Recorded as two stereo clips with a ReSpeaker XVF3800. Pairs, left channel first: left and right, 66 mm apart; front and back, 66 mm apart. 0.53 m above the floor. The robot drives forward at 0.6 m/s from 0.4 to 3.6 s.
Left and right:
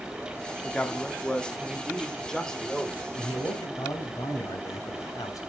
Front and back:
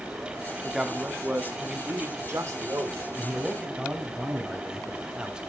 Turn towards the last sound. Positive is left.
turn(degrees=110)